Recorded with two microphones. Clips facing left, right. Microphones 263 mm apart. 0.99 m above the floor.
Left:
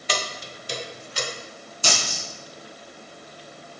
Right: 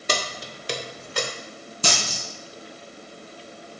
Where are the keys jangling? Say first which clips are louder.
Right 2 dB; 50° right (ahead or behind), 0.5 m; by 1.3 s 60° right (ahead or behind), 0.6 m.